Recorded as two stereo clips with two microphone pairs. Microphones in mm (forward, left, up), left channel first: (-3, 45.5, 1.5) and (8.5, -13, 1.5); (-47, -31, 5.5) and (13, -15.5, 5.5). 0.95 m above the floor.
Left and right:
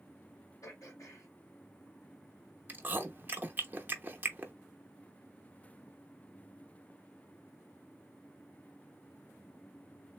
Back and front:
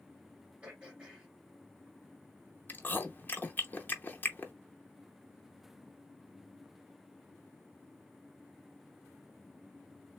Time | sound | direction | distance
0.6 | throat clearing | 85° left | 1.8 m
2.7 | chewing | 120° right | 0.6 m